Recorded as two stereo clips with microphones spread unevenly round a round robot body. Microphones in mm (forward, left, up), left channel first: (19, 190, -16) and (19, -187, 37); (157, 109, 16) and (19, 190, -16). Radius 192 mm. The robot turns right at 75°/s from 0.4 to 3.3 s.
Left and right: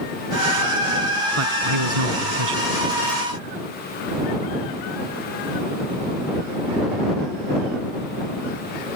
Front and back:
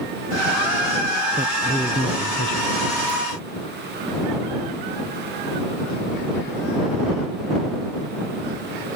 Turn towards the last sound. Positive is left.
turn(degrees=0)